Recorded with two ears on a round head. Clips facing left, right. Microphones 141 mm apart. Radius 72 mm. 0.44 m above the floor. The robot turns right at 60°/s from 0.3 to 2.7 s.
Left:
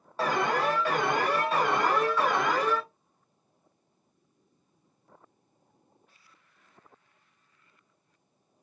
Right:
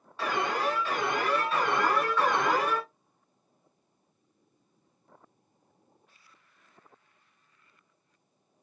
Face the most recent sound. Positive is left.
turn(degrees=-165)